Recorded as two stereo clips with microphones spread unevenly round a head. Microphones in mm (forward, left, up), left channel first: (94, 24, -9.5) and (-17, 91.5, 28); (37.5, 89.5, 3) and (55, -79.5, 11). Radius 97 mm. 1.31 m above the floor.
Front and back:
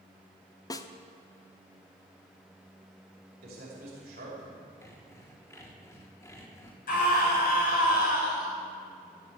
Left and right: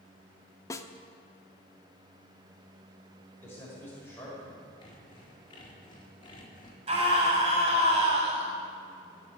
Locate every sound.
0.7 s a snare drum: 35° left, 0.9 m
3.4 s a man speaking: 175° left, 5.5 m
4.8 s sawing: 35° left, 3.5 m
6.9 s a scream: 30° right, 7 m